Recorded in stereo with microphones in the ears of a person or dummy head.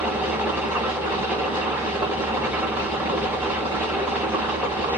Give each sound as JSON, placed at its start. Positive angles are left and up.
{"t": 0.0, "sound": "an engine running", "side_deg": -15, "distance_m": 0.9}